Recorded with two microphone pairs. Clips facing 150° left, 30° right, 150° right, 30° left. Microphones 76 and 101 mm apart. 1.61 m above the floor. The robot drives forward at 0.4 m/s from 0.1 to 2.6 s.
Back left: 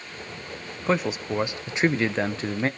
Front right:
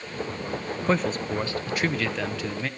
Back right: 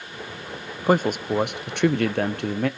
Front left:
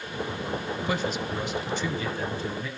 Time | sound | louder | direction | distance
0.9 | a man speaking | back left 1 dB, back right 10 dB | 120° right | 0.6 m